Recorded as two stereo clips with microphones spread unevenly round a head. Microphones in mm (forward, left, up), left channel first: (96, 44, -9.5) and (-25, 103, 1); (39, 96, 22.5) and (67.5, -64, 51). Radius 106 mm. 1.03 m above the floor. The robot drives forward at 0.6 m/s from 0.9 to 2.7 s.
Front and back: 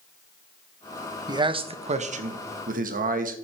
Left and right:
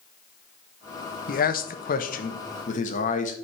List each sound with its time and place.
1.3 s a man speaking: 95° left, 0.9 m; by 3.4 s 140° left, 1.2 m